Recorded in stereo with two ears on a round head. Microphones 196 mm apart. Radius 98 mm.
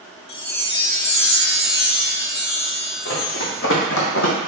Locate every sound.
0.3 s a chime: 50° left (ahead or behind), 0.8 m
3.0 s running footsteps: 50° left (ahead or behind), 2 m; by 4.3 s 65° left (ahead or behind), 1.3 m